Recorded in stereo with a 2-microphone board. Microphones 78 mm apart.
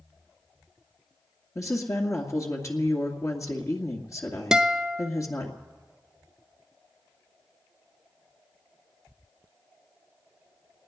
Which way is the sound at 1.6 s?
45° left (ahead or behind).